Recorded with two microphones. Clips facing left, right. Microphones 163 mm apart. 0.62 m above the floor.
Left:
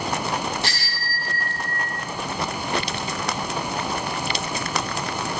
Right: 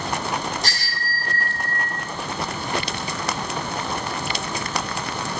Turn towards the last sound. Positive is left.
turn(degrees=-45)  # may be behind; listen again after turning